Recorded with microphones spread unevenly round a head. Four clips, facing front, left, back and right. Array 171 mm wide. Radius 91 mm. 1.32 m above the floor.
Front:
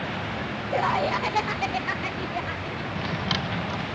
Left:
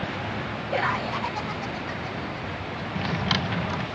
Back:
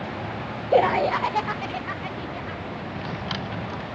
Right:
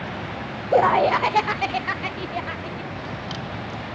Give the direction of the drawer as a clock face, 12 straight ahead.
10 o'clock.